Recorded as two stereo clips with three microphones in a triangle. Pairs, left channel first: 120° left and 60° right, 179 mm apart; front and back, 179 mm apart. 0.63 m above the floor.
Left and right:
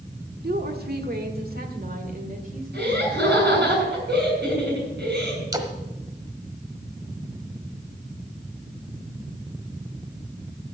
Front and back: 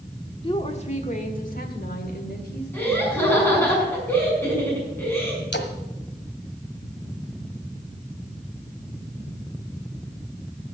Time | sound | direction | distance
0.4 | a woman speaking | 60° right | 1.4 m
2.7 | laughter | 80° right | 6.5 m
5.5 | a splash | 10° left | 1.3 m